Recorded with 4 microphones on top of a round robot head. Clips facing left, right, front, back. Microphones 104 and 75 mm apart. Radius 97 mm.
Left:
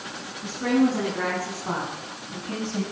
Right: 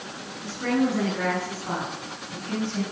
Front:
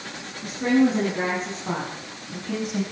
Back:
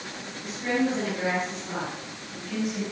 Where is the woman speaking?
20° left, 9 m; by 2.8 s 25° left, 5.5 m.